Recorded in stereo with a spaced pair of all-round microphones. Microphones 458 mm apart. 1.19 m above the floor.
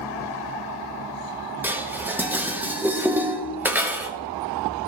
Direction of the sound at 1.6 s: 5° right (ahead or behind).